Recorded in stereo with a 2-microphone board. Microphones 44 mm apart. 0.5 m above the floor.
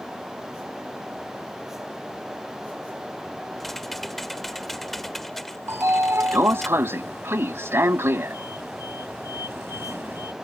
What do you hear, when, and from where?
3.6 s typing on a keyboard: 5° left (ahead or behind)
5.7 s a sliding door: 70° right (ahead or behind)